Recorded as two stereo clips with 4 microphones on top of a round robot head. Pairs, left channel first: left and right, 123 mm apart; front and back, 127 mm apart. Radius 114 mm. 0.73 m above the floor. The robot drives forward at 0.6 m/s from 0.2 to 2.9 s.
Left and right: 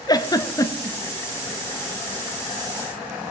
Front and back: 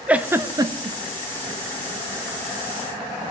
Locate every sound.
0.1 s a giggle: 110° left, 0.7 m; by 1.0 s 150° left, 0.9 m